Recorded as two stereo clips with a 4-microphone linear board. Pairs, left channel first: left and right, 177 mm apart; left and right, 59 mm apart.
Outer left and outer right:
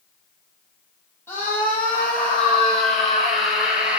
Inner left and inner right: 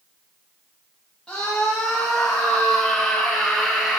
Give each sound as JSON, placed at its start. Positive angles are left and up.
{"t": 1.3, "sound": "a scream", "side_deg": 10, "distance_m": 7.0}